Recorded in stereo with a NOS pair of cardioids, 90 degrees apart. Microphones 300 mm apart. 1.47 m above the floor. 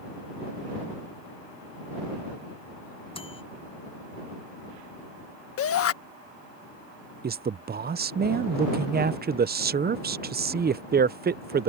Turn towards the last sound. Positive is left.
turn(degrees=-30)